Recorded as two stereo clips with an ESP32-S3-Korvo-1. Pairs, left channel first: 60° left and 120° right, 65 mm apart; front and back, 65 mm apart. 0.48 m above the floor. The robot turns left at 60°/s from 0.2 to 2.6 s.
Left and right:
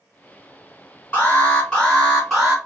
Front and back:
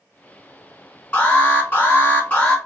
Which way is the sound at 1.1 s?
30° left.